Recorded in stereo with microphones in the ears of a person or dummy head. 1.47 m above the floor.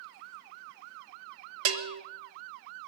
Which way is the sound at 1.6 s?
80° right.